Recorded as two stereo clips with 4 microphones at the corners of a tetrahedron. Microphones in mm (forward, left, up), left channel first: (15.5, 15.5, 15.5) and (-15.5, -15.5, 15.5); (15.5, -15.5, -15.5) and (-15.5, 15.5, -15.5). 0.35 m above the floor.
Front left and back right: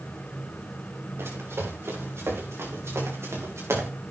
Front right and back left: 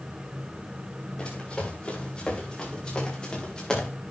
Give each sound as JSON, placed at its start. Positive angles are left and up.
{"t": 1.2, "sound": "running footsteps", "azimuth_deg": -110, "distance_m": 7.0}